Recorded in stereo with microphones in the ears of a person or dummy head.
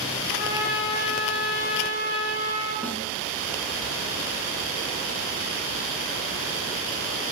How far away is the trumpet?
About 2.5 m.